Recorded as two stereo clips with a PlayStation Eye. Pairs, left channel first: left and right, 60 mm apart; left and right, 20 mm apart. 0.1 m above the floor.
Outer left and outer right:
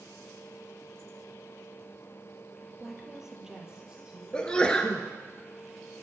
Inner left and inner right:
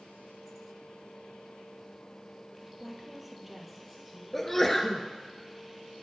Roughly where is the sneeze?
Centre.